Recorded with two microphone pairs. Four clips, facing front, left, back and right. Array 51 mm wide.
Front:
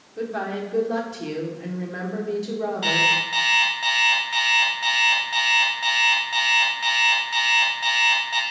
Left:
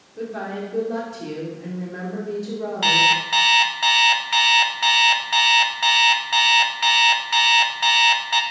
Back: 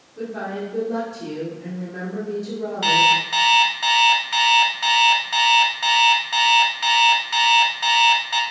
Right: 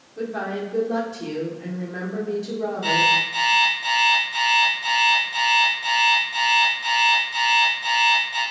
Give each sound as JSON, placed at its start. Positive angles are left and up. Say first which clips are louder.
{"t": 0.2, "sound": "a woman speaking", "louder": "right 2 dB, front 1 dB", "azimuth_deg": -20, "distance_m": 1.4}
{"t": 2.8, "sound": "an alarm clock", "louder": "left 2 dB, back 4 dB", "azimuth_deg": 110, "distance_m": 1.1}